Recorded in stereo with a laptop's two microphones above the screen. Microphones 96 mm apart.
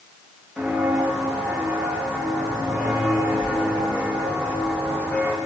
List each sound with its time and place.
0.6 s footsteps: 5° right (ahead or behind), 6 m; by 5.4 s 25° left (ahead or behind), 3 m